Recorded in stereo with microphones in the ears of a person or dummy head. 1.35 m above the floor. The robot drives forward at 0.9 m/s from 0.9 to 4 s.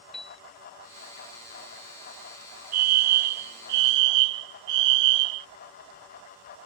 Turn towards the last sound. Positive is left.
turn(degrees=-60)  # may be behind; listen again after turning